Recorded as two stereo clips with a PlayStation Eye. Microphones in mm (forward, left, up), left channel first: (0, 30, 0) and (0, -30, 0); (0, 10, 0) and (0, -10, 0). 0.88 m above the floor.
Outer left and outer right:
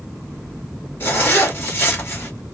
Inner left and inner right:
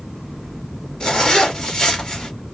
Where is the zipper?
40° left (ahead or behind), 1.3 m.